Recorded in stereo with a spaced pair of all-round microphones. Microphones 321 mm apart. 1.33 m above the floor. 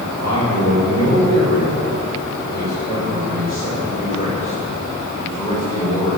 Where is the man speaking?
50° left (ahead or behind), 6 m; by 6.2 s 10° left (ahead or behind), 6 m.